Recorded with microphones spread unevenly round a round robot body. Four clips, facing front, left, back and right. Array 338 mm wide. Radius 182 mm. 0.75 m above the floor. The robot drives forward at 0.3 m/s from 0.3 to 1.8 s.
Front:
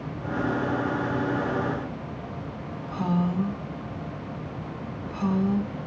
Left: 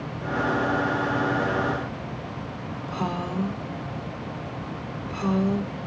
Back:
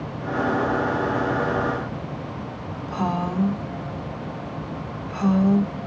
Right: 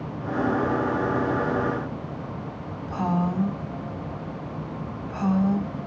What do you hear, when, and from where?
2.9 s a woman speaking: 165° right, 2 m